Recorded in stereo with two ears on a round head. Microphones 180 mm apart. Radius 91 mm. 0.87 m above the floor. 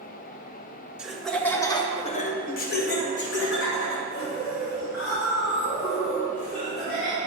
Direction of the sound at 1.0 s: 5° right (ahead or behind).